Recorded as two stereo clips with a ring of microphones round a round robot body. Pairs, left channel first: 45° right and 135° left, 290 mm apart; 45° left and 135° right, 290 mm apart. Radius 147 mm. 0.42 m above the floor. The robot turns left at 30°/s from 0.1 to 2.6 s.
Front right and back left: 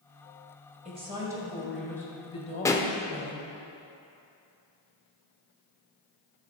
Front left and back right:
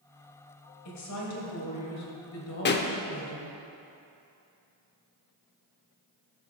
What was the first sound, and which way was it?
A woman speaking, 70° left.